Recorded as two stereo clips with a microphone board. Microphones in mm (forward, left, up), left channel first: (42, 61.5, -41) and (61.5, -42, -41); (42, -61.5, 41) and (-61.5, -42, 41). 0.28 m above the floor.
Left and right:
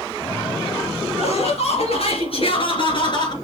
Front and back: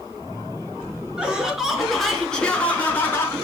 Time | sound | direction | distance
1.2 | laughter | 90° left | 4 m